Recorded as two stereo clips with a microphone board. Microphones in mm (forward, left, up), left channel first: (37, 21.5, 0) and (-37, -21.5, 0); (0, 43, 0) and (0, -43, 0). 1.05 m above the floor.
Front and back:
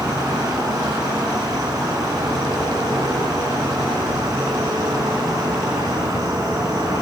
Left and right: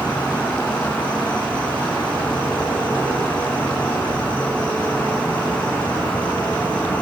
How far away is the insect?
About 8 m.